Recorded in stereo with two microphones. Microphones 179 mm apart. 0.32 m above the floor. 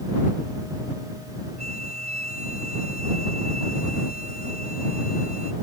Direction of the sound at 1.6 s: 40° right (ahead or behind).